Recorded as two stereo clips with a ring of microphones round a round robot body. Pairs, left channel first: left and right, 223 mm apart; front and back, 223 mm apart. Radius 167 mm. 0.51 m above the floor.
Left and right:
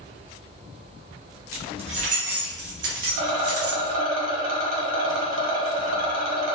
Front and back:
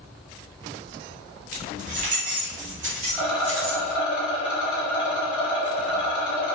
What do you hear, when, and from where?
1.5 s keys jangling: 160° right, 0.7 m; by 3.9 s 115° right, 1.9 m
3.1 s a rattle: 90° right, 1.4 m